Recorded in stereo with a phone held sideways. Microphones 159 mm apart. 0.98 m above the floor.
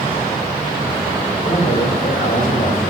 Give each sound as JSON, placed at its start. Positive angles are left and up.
{"t": 1.4, "sound": "a man speaking", "side_deg": 60, "distance_m": 3.0}